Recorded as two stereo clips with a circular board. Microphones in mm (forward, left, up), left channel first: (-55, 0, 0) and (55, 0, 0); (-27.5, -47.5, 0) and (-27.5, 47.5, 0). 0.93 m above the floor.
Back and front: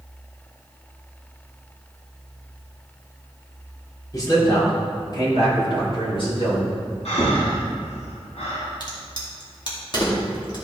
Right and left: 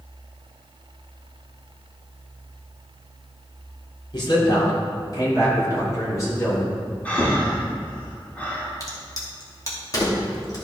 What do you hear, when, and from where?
4.1 s a man speaking: 125° right, 3.5 m; by 6.8 s 145° right, 5.5 m
7.0 s breathing: 165° right, 2.0 m
8.8 s a crack: 140° right, 2 m